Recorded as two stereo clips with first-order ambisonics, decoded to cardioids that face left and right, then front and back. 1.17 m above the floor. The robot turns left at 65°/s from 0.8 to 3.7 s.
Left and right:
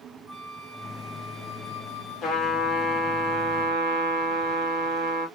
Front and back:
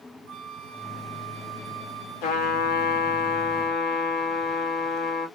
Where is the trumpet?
25° left, 1.3 m; by 5.3 s 70° right, 1.3 m.